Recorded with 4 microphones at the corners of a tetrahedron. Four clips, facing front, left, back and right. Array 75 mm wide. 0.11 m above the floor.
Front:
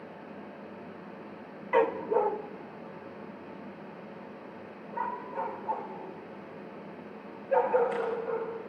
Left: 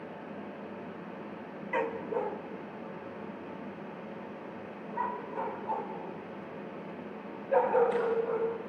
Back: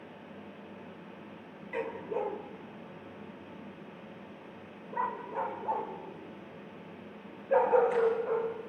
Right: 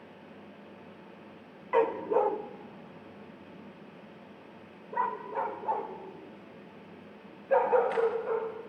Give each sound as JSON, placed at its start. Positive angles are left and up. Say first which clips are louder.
{"t": 1.7, "sound": "a dog barking", "louder": "right 6 dB, front 9 dB", "azimuth_deg": -30, "distance_m": 0.8}